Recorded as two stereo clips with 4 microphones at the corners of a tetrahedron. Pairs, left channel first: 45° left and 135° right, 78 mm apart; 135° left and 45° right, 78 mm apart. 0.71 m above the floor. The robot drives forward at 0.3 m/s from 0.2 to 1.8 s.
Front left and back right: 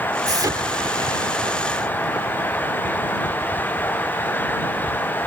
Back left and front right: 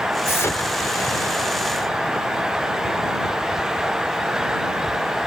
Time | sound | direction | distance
0.3 | an explosion | 170° right | ?